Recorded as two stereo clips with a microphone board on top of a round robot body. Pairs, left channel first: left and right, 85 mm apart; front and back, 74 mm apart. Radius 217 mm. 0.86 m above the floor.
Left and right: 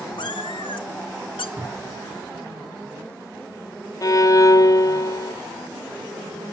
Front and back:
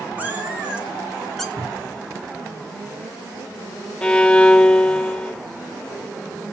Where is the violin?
70° left, 1.2 m.